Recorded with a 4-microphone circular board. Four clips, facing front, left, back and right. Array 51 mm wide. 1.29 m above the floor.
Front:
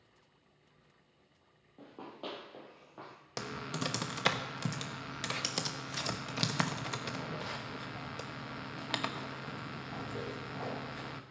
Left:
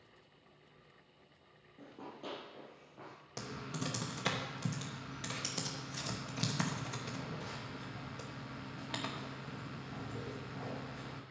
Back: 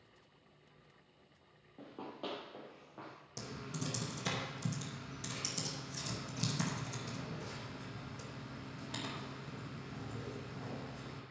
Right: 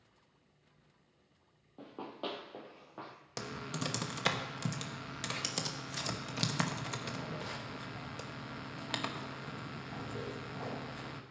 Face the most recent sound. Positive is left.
turn(degrees=-20)